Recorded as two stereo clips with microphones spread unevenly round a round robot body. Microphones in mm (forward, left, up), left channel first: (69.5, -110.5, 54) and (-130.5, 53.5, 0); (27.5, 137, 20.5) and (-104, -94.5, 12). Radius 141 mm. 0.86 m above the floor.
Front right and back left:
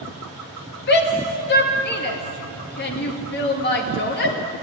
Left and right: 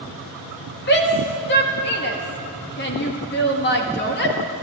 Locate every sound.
0.9 s a shout: 15° left, 1.5 m